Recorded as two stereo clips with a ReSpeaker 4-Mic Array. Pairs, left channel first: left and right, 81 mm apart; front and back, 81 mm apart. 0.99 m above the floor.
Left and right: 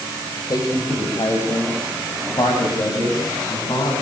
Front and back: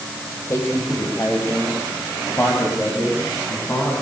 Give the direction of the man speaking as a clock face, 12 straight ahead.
10 o'clock.